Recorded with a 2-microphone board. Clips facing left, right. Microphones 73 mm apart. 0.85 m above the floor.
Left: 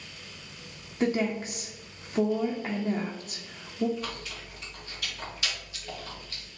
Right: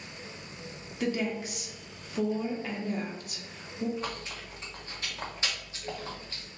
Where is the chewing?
30° right (ahead or behind), 1.1 m.